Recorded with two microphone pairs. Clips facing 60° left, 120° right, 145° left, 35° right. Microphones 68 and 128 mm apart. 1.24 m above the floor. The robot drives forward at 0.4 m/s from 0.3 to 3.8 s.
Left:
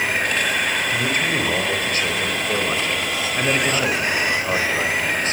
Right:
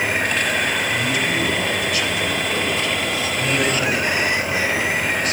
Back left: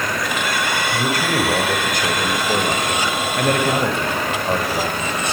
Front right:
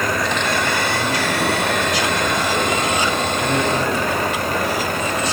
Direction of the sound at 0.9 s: 110° left.